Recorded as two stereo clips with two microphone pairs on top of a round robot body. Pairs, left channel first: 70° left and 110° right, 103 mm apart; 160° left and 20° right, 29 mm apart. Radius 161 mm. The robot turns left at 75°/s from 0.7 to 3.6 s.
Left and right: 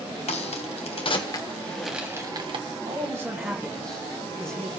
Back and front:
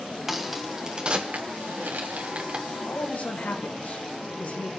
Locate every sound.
0.3 s a crack: 65° left, 1.4 m; by 2.6 s 75° right, 1.4 m
2.7 s a man speaking: 140° right, 3 m; by 4.7 s 155° left, 3 m